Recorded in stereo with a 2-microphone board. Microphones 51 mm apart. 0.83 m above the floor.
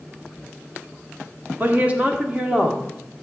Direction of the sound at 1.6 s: 35° right (ahead or behind).